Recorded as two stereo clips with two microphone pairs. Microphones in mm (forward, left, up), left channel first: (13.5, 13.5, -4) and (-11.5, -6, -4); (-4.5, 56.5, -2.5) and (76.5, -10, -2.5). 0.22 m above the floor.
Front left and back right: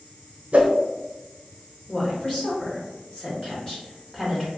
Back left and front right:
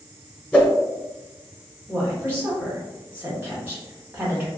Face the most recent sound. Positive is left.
turn(degrees=10)